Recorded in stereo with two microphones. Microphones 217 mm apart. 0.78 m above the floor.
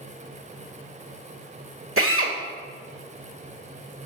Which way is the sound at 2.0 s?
80° right.